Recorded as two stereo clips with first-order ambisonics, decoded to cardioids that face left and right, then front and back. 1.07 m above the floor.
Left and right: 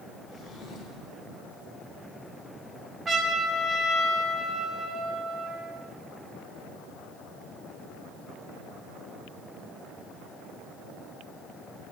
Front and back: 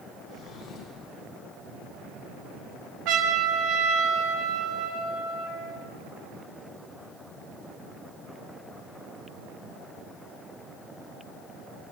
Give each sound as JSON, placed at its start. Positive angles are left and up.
{"t": 0.3, "sound": "a drawer", "azimuth_deg": 50, "distance_m": 3.5}
{"t": 3.0, "sound": "a trumpet", "azimuth_deg": -165, "distance_m": 1.5}